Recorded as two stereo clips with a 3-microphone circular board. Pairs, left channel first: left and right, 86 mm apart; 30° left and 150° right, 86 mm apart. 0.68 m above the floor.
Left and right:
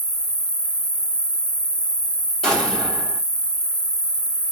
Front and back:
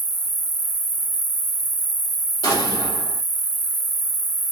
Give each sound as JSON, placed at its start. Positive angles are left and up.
{"t": 0.0, "sound": "an insect", "azimuth_deg": 145, "distance_m": 1.4}
{"t": 2.4, "sound": "an explosion", "azimuth_deg": 5, "distance_m": 1.8}